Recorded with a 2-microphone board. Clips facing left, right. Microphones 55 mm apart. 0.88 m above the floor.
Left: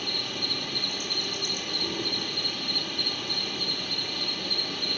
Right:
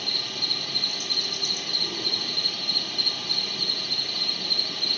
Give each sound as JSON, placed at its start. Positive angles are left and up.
{"t": 0.0, "sound": "an insect", "side_deg": 20, "distance_m": 1.6}